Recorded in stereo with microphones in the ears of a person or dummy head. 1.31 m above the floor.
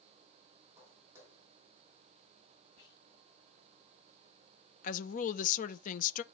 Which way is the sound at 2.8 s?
85° left.